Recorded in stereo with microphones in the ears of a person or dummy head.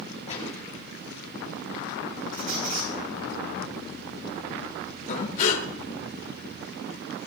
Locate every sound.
0.3 s a gunshot: 40° left (ahead or behind), 9 m
2.3 s a squeak: 40° right (ahead or behind), 5 m
5.1 s breathing: 45° left (ahead or behind), 2.5 m